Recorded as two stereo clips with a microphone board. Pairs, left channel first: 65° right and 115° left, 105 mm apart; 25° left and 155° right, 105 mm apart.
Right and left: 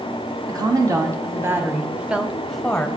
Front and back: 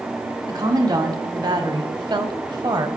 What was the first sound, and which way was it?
A woman speaking, 155° left.